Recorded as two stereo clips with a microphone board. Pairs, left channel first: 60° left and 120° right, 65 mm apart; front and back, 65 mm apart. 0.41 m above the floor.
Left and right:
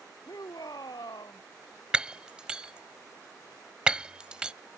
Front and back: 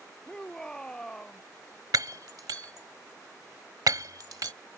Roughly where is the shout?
Left.